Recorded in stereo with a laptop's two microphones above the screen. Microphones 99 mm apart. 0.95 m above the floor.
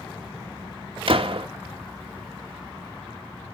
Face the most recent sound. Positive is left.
turn(degrees=-60)  # may be behind; listen again after turning